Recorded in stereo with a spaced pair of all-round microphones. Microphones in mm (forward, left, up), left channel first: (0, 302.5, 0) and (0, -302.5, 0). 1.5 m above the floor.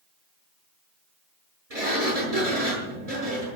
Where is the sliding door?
80° right, 7 m.